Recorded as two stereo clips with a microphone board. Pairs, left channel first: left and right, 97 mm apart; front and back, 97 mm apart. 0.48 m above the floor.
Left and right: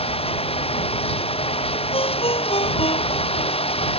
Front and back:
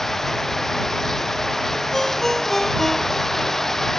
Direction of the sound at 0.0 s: 85° left.